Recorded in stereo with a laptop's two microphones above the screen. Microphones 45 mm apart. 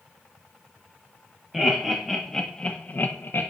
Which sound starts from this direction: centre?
Laughter, at 1.5 s.